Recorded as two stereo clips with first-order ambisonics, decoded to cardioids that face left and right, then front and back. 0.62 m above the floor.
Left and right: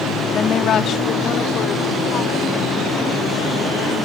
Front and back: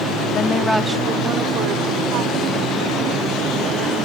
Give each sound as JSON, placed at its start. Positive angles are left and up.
{"t": 0.3, "sound": "a woman speaking", "azimuth_deg": 40}